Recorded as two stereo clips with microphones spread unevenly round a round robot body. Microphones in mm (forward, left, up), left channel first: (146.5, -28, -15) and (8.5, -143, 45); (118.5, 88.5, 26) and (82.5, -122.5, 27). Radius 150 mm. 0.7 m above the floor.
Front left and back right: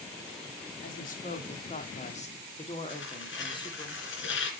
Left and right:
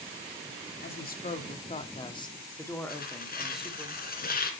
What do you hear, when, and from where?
0.8 s a woman speaking: 50° left, 1.9 m; by 3.9 s 15° right, 2.5 m
2.9 s tearing paper: 35° left, 2.5 m